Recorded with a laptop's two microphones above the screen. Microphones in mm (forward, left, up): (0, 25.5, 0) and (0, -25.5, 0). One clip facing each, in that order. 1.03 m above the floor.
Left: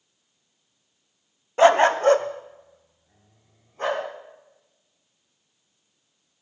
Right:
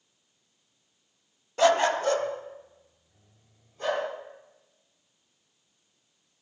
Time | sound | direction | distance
1.6 | a dog barking | 30° left (ahead or behind) | 0.6 m